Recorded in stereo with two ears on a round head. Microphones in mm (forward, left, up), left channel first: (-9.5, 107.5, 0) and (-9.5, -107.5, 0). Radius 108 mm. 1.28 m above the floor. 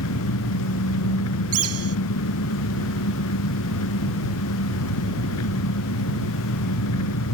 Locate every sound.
0.0 s an engine running: 75° left (ahead or behind)
1.5 s a bird: 70° right (ahead or behind)